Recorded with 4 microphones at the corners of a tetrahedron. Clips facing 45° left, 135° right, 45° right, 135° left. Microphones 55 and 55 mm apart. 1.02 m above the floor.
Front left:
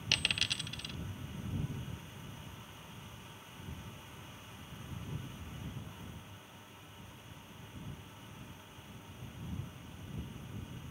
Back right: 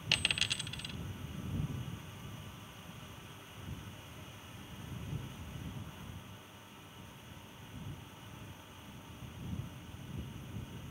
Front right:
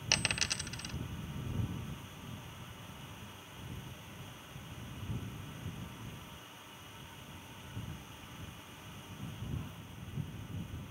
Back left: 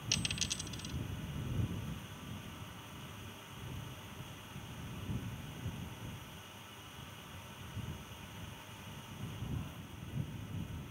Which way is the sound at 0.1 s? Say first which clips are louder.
Even, front right 6 dB; 50° right.